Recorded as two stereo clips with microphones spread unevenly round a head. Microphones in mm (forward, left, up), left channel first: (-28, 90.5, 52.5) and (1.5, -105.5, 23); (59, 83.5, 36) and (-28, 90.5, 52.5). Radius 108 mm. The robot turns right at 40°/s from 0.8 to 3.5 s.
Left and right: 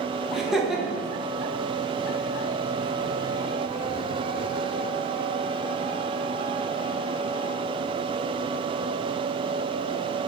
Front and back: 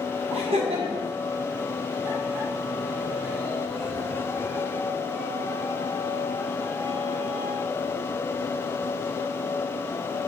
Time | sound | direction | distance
0.3 | laughter | 170° right | 1.5 m